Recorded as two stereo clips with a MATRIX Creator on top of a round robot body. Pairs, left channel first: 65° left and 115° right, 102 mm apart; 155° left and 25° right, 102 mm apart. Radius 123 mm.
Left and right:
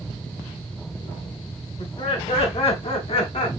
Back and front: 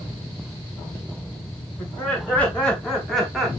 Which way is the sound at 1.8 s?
85° left.